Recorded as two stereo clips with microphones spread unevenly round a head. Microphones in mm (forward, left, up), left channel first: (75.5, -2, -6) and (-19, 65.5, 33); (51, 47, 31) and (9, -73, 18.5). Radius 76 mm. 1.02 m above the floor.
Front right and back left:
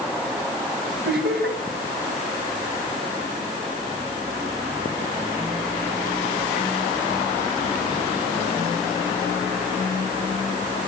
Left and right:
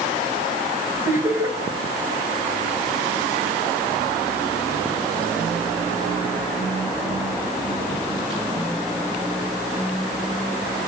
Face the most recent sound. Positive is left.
turn(degrees=175)